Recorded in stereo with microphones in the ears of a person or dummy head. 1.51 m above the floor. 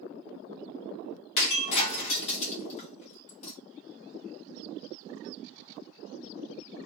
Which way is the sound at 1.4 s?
35° left (ahead or behind).